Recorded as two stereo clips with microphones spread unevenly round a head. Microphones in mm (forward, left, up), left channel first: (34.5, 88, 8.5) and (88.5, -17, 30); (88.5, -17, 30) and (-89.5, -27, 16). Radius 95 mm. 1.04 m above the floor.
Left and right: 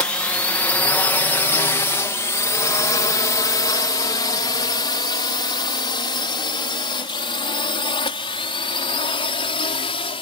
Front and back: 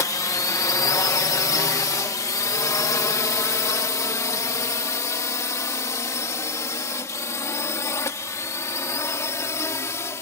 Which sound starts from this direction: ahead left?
A drone, at 0.0 s.